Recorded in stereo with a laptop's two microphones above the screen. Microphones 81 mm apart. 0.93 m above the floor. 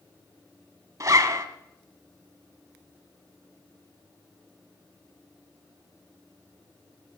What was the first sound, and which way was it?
A zipper, 45° right (ahead or behind).